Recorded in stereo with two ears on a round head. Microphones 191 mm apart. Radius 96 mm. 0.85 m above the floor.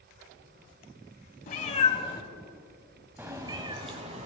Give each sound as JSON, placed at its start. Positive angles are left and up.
{"t": 1.5, "sound": "a cat meowing", "side_deg": 40, "distance_m": 1.3}